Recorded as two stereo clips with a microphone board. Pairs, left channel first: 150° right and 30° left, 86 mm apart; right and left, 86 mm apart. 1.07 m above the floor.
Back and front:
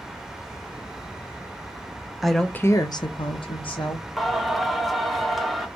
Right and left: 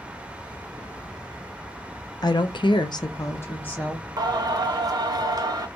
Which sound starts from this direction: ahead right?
A woman speaking, at 2.2 s.